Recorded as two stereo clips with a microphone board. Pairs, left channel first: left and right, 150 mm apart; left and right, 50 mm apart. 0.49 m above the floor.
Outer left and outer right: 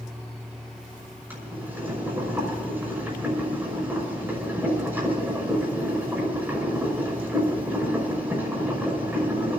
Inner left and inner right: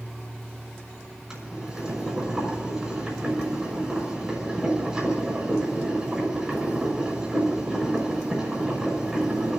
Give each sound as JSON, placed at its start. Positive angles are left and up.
{"t": 1.3, "sound": "boiling", "side_deg": -15, "distance_m": 6.0}